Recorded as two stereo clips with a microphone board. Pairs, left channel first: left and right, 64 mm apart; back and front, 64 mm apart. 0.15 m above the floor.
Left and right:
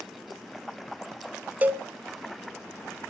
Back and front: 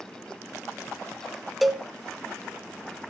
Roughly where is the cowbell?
Right.